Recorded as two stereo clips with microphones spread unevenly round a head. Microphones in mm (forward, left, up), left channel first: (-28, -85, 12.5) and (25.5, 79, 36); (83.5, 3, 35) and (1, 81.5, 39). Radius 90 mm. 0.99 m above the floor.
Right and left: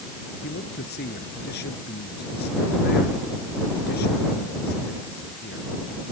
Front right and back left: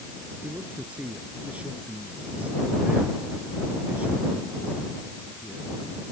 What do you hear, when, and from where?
0.4 s a man speaking: 140° right